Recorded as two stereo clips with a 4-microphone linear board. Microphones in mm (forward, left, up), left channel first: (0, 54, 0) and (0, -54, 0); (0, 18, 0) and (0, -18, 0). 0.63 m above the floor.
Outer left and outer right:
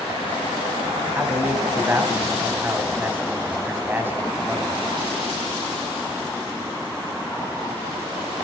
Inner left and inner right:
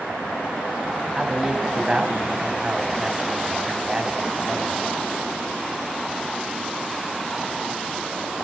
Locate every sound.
1.1 s a man speaking: 20° right (ahead or behind), 4.5 m